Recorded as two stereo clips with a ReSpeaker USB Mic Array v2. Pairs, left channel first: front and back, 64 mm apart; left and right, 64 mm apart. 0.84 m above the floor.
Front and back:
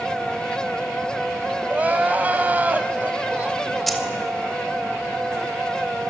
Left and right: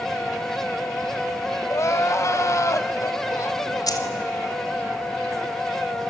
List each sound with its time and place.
1.7 s crying: 120° left, 1.2 m
3.9 s keys jangling: 90° left, 2.5 m